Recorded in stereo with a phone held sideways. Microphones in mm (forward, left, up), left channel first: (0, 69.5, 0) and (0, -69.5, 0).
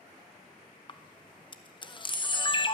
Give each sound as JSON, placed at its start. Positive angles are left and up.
{"t": 0.9, "sound": "a camera shutter", "side_deg": 35, "distance_m": 0.7}